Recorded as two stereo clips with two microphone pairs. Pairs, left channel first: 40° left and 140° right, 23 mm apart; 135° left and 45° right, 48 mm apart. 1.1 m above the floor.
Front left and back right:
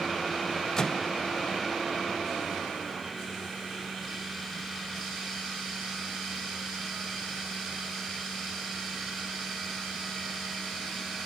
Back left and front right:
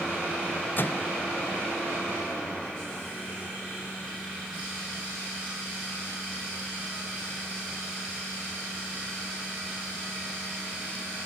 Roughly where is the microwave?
Left.